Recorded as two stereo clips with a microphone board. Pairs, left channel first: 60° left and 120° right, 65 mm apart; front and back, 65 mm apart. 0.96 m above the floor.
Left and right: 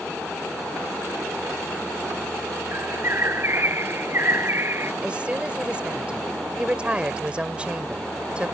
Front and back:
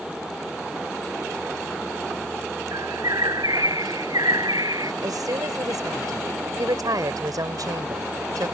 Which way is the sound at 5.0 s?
165° left.